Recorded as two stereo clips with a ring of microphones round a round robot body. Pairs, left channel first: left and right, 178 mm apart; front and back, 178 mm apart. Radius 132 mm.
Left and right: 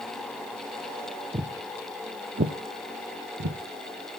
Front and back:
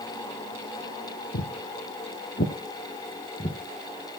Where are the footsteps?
30° right, 1.2 m; by 3.6 s 75° right, 1.7 m.